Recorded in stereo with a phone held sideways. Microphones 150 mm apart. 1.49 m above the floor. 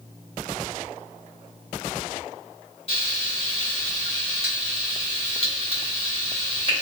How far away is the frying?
About 1.8 m.